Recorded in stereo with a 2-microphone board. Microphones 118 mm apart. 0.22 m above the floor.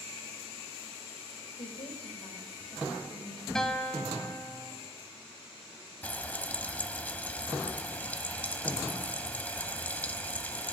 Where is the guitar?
5° left (ahead or behind), 1.3 m.